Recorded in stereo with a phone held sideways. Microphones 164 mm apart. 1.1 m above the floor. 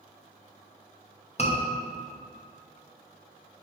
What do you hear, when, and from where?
1.4 s a scream: 45° left (ahead or behind), 1.0 m